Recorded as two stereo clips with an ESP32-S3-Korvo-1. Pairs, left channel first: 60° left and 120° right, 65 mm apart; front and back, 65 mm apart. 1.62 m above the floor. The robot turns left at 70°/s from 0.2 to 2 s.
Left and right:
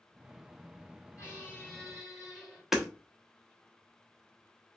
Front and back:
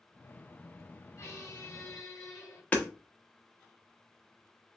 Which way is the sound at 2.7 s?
45° right.